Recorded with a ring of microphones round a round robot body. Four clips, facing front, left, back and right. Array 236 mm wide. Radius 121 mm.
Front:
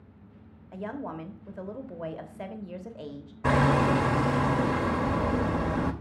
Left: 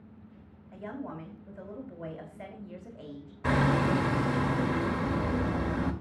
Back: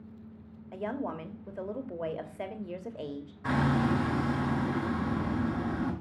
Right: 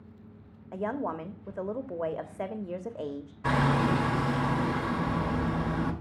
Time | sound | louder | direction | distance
0.7 | a woman speaking | right 7 dB, back 1 dB | 105° right | 1.3 m
3.4 | hammering | even, front 5 dB | 15° left | 1.6 m